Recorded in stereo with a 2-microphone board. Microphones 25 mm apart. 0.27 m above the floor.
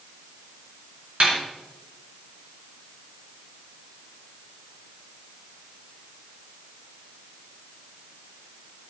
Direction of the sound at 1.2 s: 55° right (ahead or behind).